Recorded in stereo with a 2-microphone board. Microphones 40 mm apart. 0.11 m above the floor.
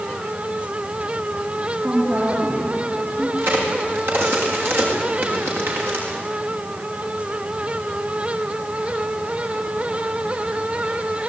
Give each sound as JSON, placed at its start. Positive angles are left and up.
{"t": 1.8, "sound": "a woman speaking", "side_deg": -55, "distance_m": 6.5}
{"t": 3.4, "sound": "a crack", "side_deg": -65, "distance_m": 8.0}